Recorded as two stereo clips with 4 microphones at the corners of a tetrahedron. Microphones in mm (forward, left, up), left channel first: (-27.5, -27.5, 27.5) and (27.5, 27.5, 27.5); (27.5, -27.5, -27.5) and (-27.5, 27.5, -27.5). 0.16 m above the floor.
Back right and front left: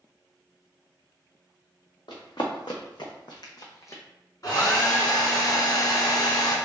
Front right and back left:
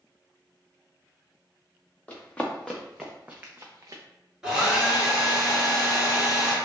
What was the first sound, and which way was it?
Running footsteps, 115° right.